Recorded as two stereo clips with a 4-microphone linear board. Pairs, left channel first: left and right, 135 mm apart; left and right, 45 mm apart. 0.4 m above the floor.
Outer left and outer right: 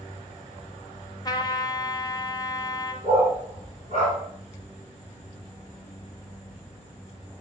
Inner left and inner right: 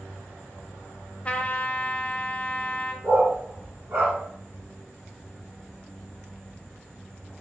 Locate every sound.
1.2 s a trumpet: 30° left (ahead or behind), 0.6 m
3.0 s a dog barking: 85° right, 1.8 m